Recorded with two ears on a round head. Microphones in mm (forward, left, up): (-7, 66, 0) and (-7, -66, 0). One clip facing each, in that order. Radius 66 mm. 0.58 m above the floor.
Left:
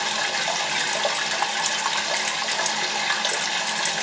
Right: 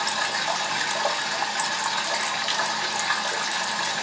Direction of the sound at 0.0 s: 25° left (ahead or behind).